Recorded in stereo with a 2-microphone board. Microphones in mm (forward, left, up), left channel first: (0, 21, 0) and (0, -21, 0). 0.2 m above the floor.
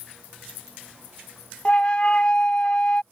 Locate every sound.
1.6 s a flute: 30° left (ahead or behind)